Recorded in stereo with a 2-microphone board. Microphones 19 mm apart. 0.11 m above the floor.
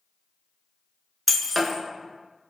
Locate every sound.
1.3 s breaking glass: centre (ahead or behind), 0.7 m